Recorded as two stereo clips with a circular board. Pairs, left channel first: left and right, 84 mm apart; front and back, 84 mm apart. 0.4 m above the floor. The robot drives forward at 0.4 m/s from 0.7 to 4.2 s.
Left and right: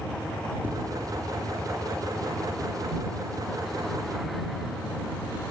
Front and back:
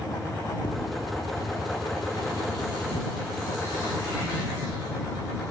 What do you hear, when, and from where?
0.6 s tapping: 20° right, 4 m